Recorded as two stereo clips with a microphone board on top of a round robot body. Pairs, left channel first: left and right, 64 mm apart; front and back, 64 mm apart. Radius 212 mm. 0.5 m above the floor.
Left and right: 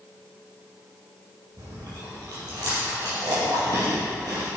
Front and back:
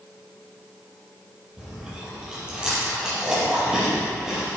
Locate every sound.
1.6 s chewing: 105° right, 4.5 m